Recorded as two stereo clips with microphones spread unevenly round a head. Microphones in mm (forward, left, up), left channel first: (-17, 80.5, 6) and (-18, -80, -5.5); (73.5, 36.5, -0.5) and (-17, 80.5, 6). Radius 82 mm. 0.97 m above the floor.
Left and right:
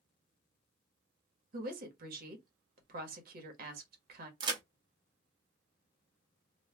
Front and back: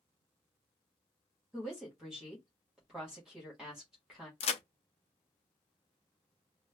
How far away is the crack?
About 0.5 m.